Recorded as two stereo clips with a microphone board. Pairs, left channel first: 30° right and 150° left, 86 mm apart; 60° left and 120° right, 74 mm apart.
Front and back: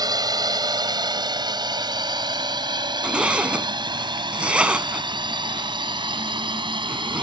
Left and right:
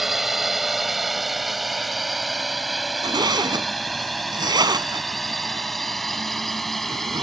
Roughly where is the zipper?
Behind right.